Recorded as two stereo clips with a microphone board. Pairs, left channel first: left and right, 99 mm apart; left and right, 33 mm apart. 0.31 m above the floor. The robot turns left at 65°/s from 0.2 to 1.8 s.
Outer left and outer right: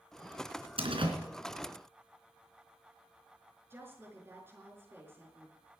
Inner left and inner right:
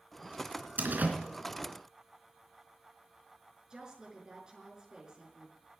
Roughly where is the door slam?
Right.